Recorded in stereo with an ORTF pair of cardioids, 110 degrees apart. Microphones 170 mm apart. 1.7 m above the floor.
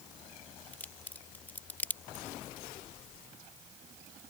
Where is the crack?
10° left.